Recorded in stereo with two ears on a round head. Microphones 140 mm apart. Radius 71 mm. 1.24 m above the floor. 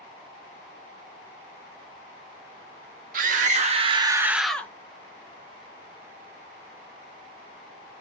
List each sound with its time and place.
3.1 s a scream: 55° right (ahead or behind), 2 m; by 4.7 s 15° left (ahead or behind), 1.4 m